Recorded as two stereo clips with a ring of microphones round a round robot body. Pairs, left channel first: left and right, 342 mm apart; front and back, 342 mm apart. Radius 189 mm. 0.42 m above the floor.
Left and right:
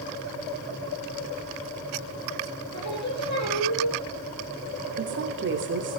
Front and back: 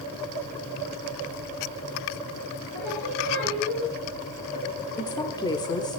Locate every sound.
2.7 s singing: 130° left, 5.5 m
5.0 s a woman speaking: 70° right, 1.4 m